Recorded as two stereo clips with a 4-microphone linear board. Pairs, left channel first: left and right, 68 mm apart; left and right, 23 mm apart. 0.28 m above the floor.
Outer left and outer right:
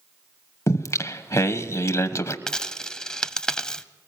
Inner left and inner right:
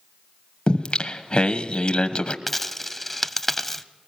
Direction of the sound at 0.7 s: 45° left (ahead or behind).